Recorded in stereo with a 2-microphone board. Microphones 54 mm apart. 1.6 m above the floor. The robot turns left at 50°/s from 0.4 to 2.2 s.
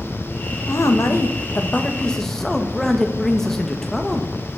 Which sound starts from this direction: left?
A woman speaking, at 0.7 s.